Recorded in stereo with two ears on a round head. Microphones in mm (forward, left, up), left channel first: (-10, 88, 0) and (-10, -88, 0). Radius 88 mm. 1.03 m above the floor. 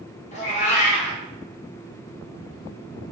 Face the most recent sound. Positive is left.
turn(degrees=35)  # may be behind; listen again after turning